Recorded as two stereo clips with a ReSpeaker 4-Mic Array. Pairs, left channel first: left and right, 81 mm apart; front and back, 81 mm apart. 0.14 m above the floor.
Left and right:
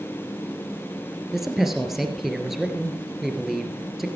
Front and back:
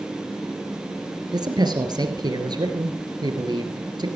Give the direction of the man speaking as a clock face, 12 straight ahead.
6 o'clock.